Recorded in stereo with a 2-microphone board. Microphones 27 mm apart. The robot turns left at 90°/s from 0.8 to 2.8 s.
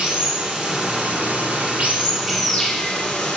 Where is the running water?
30° right, 2 m; by 3.4 s 150° left, 2 m.